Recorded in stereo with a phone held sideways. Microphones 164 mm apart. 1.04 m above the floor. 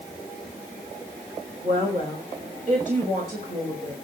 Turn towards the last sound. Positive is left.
turn(degrees=-50)  # may be behind; listen again after turning